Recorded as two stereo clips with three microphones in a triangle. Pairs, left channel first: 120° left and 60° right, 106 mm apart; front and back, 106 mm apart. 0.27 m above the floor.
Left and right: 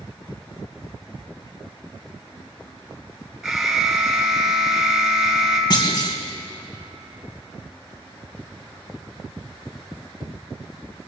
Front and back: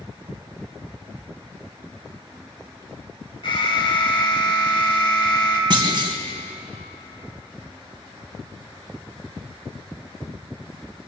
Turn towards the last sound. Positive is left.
turn(degrees=155)